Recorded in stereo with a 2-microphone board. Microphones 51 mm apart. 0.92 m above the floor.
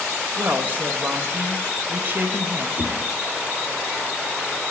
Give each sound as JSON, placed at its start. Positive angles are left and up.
{"t": 0.4, "sound": "a man speaking", "side_deg": -40, "distance_m": 1.2}
{"t": 2.8, "sound": "a whoosh", "side_deg": -55, "distance_m": 1.7}